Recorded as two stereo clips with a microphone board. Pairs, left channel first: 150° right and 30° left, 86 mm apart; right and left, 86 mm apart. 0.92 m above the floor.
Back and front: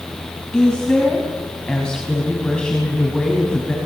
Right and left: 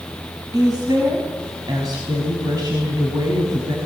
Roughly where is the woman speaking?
Behind left.